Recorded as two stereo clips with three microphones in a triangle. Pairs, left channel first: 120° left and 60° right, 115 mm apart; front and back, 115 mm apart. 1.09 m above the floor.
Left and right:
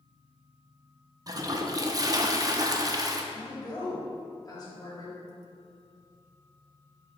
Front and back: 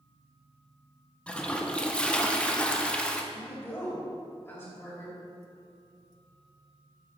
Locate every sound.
1.3 s a toilet flushing: 75° right, 0.6 m
3.3 s a woman speaking: 70° left, 2.5 m